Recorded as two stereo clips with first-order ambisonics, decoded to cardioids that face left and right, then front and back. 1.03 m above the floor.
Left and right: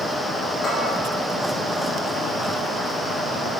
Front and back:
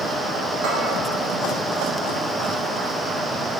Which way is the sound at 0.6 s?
155° left.